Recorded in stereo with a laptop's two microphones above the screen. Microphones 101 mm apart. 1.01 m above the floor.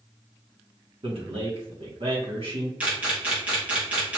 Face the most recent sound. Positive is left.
turn(degrees=-15)  # may be behind; listen again after turning